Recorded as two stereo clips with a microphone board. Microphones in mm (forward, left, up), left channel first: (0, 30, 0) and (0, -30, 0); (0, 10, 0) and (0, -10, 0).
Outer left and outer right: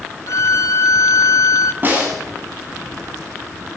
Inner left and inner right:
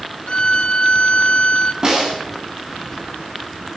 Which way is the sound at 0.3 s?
55° left (ahead or behind).